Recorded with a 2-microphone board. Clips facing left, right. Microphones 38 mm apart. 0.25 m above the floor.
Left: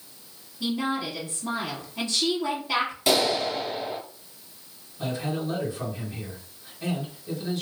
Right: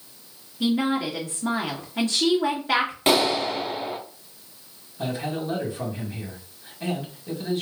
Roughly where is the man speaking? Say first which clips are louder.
Right 1 dB; right.